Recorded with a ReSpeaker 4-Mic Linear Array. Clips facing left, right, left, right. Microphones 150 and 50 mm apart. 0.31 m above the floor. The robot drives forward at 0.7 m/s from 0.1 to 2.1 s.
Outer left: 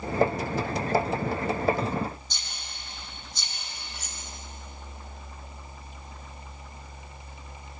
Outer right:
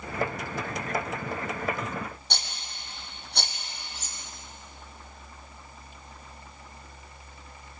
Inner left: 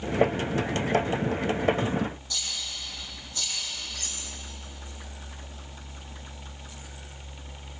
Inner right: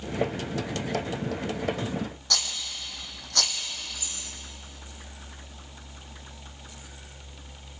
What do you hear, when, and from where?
2.3 s a rattle: 70° right (ahead or behind), 2.5 m
4.0 s cutlery clinking: 65° left (ahead or behind), 2.5 m